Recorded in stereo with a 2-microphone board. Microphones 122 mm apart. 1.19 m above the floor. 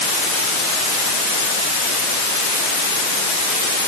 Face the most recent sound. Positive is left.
No sound to turn to.